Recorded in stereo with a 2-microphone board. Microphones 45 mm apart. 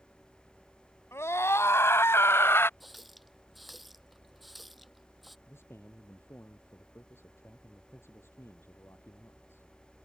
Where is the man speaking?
60° left (ahead or behind).